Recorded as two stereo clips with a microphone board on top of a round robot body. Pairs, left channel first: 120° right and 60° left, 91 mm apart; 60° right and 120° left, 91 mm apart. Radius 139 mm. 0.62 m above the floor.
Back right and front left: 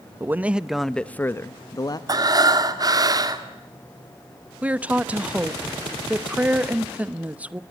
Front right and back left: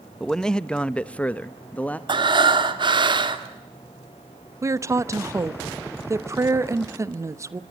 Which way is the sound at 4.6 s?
120° left.